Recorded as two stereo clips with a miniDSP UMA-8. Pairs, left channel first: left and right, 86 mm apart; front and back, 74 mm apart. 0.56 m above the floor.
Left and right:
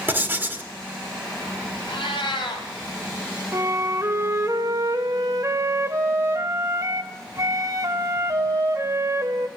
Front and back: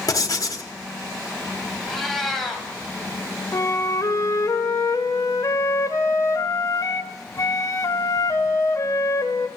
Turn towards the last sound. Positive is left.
turn(degrees=-40)